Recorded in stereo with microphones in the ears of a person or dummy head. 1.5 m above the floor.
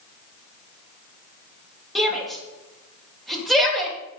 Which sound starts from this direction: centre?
A shout, at 1.9 s.